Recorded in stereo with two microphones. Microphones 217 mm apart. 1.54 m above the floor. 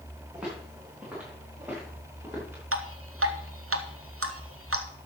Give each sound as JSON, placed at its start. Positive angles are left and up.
{"t": 0.3, "sound": "footsteps", "side_deg": -5, "distance_m": 6.5}
{"t": 2.7, "sound": "dripping", "side_deg": -85, "distance_m": 1.3}